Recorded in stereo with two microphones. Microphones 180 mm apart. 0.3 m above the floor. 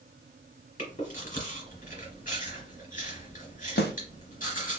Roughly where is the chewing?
Left.